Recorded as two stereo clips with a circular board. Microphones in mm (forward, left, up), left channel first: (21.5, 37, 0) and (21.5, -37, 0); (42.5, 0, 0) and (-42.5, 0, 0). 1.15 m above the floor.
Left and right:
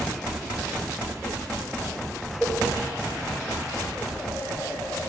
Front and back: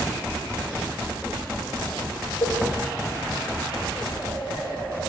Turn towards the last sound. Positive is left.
turn(degrees=10)